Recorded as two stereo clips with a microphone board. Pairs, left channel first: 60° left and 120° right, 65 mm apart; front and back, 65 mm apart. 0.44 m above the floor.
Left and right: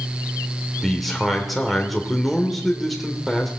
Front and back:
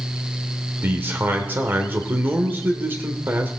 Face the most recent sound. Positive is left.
turn(degrees=150)